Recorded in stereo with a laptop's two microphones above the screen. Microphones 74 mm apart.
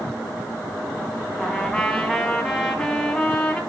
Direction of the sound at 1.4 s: 10° left (ahead or behind).